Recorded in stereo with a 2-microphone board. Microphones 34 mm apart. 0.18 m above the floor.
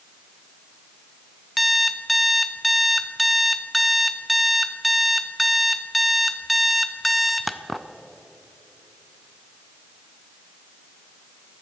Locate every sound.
1.6 s an alarm clock: centre (ahead or behind), 0.6 m